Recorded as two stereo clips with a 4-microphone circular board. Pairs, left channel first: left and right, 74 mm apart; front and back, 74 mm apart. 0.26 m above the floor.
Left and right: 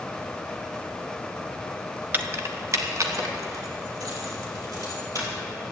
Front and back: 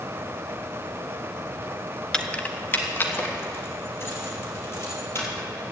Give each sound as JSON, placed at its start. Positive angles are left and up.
{"t": 2.1, "sound": "keys jangling", "azimuth_deg": -65, "distance_m": 0.9}